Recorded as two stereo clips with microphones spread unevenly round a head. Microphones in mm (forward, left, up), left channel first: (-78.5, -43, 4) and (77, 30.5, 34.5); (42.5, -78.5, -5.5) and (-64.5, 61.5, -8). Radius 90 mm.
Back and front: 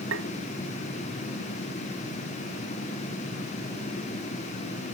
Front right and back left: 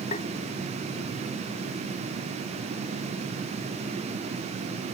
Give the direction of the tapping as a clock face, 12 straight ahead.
12 o'clock.